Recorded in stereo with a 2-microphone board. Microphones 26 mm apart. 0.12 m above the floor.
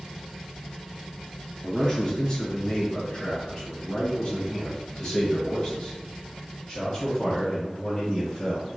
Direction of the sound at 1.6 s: 20° left (ahead or behind).